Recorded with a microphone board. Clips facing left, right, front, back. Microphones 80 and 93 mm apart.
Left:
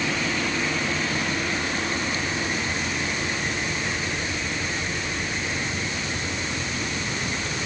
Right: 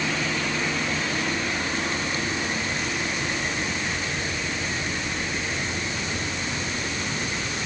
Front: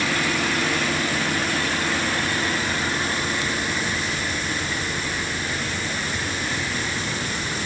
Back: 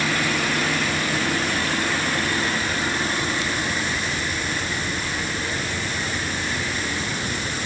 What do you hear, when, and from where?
Only background noise.